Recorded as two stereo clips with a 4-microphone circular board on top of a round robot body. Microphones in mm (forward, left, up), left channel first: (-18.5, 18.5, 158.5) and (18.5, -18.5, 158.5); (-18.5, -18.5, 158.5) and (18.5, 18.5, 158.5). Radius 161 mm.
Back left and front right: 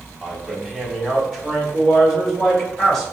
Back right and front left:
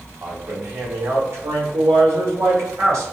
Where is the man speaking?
40° left, 2.0 m; by 3.0 s 60° left, 3 m.